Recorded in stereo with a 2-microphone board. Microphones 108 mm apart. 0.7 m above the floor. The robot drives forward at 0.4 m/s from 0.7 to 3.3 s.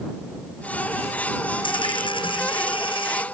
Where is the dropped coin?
50° left (ahead or behind); by 3.2 s 55° left (ahead or behind).